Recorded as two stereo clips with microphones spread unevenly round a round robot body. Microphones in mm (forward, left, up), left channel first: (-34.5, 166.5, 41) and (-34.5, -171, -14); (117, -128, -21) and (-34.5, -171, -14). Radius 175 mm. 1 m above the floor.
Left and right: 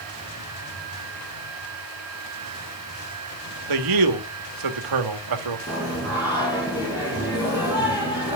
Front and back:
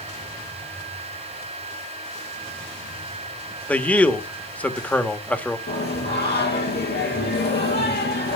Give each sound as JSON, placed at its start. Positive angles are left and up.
{"t": 3.7, "sound": "a man speaking", "azimuth_deg": -65, "distance_m": 1.7}
{"t": 5.7, "sound": "singing", "azimuth_deg": 10, "distance_m": 5.0}